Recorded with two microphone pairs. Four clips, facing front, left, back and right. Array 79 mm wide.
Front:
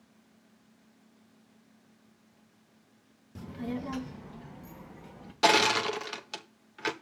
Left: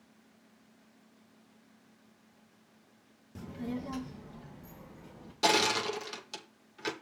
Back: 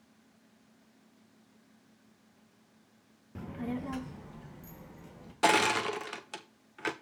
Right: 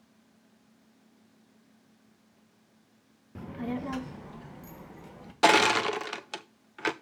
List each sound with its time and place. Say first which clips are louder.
3.4 s a child speaking: right 4 dB, front 1 dB; 140° right, 0.5 m; by 5.3 s 70° right, 1.7 m
5.4 s crushing: right 6 dB, front 2 dB; 90° right, 0.6 m